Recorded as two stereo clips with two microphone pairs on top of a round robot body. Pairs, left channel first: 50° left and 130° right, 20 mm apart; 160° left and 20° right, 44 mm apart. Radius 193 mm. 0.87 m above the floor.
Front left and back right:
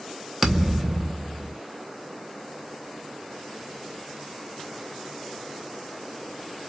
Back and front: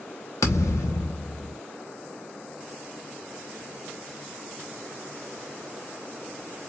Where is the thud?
155° left, 0.7 m.